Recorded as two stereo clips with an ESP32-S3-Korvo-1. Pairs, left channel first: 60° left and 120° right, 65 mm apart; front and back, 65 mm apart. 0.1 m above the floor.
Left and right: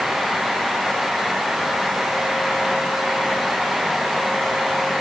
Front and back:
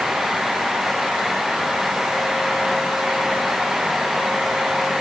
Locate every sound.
Only background noise.